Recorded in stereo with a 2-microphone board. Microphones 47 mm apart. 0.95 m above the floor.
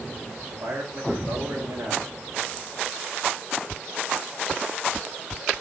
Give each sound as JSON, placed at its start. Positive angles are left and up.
{"t": 0.5, "sound": "a man speaking", "side_deg": -85, "distance_m": 6.0}